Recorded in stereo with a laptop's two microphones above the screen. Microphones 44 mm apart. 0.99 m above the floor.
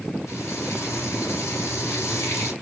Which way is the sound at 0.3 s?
75° left (ahead or behind).